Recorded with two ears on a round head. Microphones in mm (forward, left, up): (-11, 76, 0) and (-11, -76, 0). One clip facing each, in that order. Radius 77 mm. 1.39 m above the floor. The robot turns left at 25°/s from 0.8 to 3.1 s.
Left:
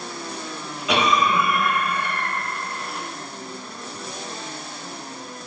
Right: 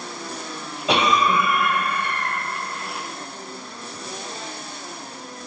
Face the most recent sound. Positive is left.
turn(degrees=-80)